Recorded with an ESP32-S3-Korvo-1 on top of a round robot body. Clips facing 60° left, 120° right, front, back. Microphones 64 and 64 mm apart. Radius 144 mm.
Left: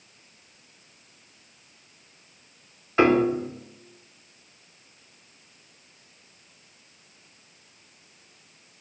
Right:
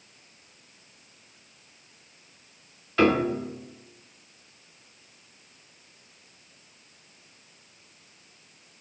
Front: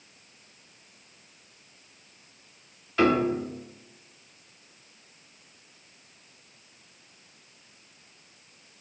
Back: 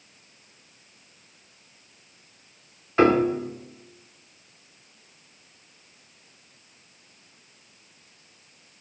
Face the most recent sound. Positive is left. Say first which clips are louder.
# left 3 dB, back 4 dB
turn(degrees=125)